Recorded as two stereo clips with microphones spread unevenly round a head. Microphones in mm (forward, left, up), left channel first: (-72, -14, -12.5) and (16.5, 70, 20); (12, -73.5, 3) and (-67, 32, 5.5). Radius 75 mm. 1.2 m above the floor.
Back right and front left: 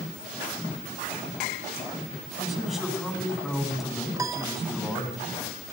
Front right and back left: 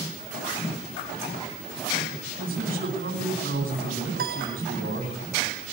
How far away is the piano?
About 2.0 m.